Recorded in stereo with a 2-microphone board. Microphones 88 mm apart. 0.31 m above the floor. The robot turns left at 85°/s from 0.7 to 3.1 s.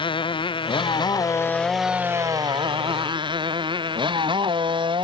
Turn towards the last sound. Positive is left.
turn(degrees=-80)